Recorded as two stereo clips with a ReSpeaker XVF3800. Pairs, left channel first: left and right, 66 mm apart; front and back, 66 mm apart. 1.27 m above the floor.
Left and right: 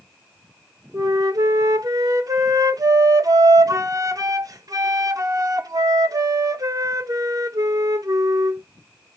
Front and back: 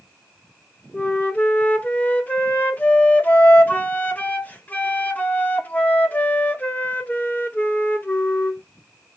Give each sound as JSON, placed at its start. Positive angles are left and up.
{"t": 0.9, "sound": "a flute", "azimuth_deg": -65, "distance_m": 1.0}